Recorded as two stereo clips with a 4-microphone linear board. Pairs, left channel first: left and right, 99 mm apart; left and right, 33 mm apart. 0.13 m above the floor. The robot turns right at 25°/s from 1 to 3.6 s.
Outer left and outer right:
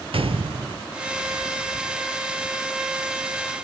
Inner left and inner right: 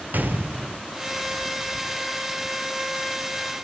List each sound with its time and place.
0.1 s a gunshot: 70° right (ahead or behind), 0.6 m